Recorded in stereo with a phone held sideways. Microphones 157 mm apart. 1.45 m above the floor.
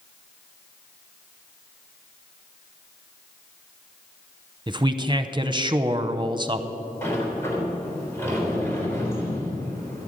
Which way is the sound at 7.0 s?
15° left (ahead or behind).